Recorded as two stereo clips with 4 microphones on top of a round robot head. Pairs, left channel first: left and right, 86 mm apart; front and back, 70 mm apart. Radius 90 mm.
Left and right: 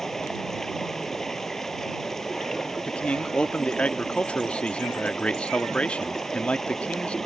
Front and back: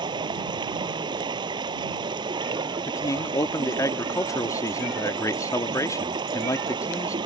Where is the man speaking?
15° left.